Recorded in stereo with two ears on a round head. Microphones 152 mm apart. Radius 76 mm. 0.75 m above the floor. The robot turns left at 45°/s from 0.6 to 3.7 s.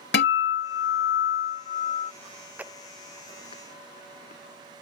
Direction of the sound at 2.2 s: 25° right (ahead or behind).